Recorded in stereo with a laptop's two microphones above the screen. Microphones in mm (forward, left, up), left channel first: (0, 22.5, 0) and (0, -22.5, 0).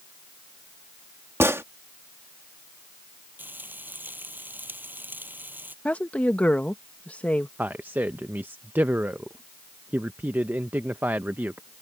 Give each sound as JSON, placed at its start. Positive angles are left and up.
{"t": 1.4, "sound": "a gunshot", "side_deg": -70}
{"t": 3.4, "sound": "frying", "side_deg": -45}
{"t": 5.8, "sound": "a woman speaking", "side_deg": 30}
{"t": 7.6, "sound": "a man speaking", "side_deg": -45}